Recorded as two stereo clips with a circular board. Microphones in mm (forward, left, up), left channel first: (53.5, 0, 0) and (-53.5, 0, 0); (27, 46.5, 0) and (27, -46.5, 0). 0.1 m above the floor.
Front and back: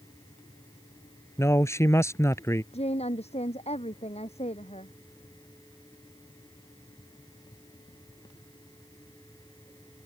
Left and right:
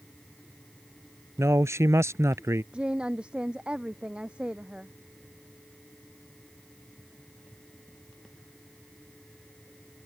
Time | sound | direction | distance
1.4 | a man speaking | 50° right | ?
2.7 | a woman speaking | 10° right | ?